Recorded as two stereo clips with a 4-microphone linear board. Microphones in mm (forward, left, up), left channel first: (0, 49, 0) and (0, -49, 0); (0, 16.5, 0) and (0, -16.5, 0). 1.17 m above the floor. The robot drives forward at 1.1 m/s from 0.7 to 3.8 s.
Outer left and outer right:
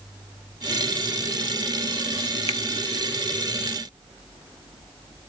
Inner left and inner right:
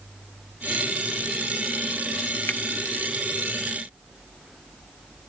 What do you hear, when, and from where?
2.5 s a finger snap: 80° left; by 2.6 s 75° left (ahead or behind)